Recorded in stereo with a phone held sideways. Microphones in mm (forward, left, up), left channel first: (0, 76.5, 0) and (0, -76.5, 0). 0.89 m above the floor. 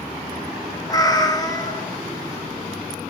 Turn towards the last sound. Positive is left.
turn(degrees=25)  # may be behind; listen again after turning